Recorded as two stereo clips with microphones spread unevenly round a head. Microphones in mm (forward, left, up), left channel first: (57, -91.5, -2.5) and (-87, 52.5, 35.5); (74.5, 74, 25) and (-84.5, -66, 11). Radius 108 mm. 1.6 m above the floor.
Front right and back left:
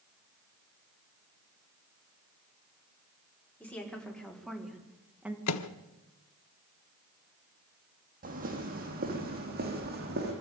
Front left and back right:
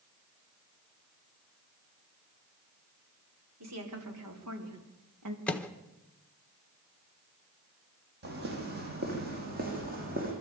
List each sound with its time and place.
3.6 s a woman speaking: 130° right, 5 m; by 5.4 s 140° right, 3 m
5.5 s a microwave: 40° right, 1.1 m
8.2 s footsteps: straight behind, 4.5 m; by 10.3 s 170° left, 5.5 m